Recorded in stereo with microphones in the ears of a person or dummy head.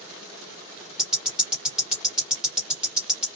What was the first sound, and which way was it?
Ticking, 5° right (ahead or behind).